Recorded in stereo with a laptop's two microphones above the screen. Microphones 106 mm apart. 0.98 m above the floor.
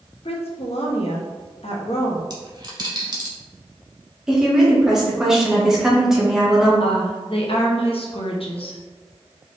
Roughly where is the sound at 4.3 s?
Centre.